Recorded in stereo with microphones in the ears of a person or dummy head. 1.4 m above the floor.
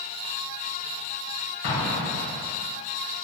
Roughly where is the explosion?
Left.